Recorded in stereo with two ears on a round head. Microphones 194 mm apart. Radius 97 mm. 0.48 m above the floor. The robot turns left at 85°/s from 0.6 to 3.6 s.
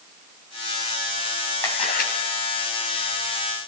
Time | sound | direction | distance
1.6 | a camera shutter | 170° left | 2.5 m